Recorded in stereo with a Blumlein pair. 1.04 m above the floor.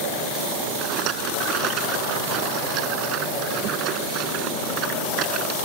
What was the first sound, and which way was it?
A rattle, 35° right.